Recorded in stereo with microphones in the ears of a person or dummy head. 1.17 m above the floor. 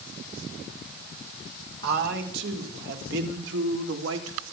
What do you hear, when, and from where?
1.8 s a man speaking: 65° right (ahead or behind), 4 m; by 4.4 s 80° right, 3 m